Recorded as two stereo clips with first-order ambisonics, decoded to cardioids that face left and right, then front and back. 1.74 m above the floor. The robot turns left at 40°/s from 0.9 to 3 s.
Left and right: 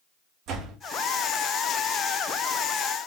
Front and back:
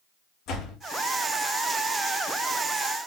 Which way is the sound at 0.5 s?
45° right.